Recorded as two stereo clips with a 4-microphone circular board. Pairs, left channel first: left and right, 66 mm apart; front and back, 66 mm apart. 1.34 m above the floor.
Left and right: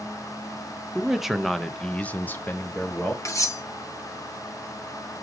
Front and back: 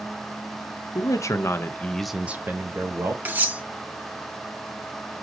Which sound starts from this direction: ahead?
A man speaking, at 0.9 s.